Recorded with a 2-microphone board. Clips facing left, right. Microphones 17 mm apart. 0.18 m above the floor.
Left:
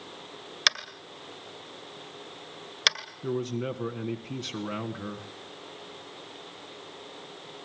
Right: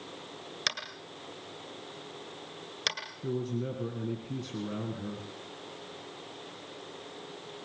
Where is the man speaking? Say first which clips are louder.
Left 3 dB; 45° left (ahead or behind), 1.6 m.